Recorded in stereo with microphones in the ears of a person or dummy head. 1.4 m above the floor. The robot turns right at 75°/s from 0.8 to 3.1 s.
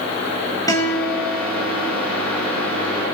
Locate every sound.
0.7 s a guitar: 165° left, 2 m; by 1.9 s 110° right, 2 m